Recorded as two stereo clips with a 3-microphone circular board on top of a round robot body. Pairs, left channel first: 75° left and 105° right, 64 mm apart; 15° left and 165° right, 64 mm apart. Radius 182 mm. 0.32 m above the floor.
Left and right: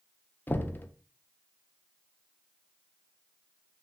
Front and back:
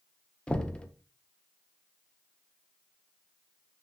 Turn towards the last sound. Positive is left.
turn(degrees=70)